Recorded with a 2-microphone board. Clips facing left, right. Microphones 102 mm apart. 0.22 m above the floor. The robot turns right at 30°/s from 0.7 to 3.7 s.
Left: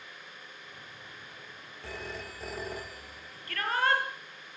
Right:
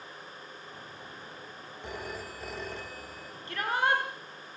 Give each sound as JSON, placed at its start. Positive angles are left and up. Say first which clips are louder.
{"t": 1.8, "sound": "a phone ringing", "louder": "right 1 dB", "azimuth_deg": -20, "distance_m": 3.0}
{"t": 3.5, "sound": "a shout", "louder": "even", "side_deg": -20, "distance_m": 5.5}